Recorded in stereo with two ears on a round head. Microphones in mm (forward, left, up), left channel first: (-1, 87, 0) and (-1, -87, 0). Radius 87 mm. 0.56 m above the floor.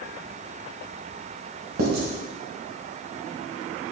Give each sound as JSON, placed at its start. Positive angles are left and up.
{"t": 1.8, "sound": "writing", "side_deg": -80, "distance_m": 1.9}